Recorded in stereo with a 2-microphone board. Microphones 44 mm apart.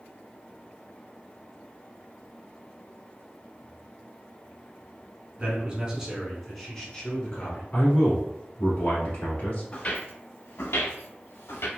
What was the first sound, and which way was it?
A man speaking, 30° right (ahead or behind).